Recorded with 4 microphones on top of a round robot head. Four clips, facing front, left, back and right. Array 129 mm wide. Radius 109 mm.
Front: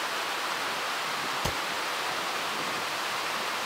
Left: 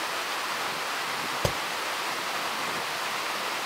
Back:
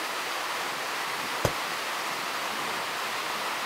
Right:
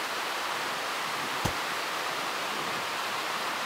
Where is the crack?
145° left, 3 m.